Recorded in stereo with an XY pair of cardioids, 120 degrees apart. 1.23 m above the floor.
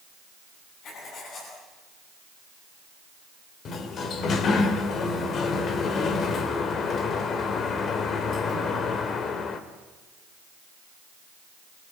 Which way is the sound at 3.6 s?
50° left.